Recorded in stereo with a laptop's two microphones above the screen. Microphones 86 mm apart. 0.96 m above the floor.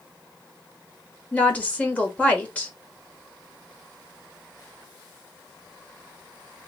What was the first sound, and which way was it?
A woman speaking, 20° left (ahead or behind).